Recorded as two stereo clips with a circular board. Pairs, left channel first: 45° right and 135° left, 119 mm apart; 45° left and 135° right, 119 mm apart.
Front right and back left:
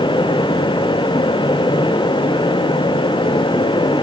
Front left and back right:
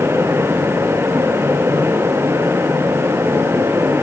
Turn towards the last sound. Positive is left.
No sound to turn to.